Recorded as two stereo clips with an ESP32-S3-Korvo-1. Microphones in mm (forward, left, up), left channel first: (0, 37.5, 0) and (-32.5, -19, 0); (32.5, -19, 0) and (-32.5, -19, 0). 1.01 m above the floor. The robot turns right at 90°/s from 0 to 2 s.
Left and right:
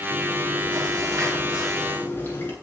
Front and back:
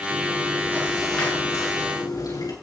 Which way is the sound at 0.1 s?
175° right.